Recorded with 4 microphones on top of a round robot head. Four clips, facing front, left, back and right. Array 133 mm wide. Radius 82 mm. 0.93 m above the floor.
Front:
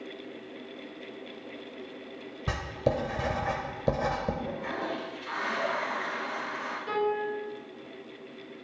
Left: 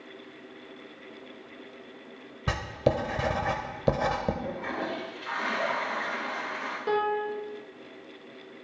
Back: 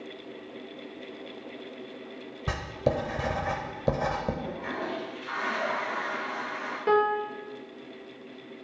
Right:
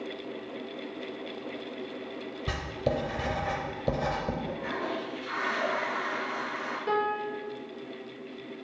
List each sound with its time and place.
2.5 s writing: 100° left, 0.7 m
4.4 s a toilet flushing: 70° left, 2 m
6.9 s a piano: 170° left, 1.0 m